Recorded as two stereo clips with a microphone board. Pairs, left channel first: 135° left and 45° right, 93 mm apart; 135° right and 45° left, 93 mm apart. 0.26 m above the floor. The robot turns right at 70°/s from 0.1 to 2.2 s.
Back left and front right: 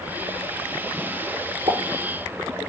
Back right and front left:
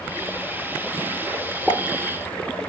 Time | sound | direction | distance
1.7 | a pop | 65° right | 2 m